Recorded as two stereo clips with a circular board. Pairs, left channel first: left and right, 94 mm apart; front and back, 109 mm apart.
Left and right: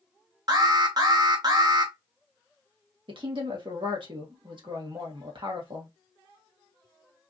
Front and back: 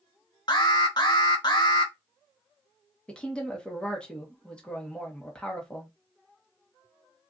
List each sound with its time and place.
0.5 s an alarm: 45° right, 0.8 m
3.1 s a woman speaking: 80° right, 1.4 m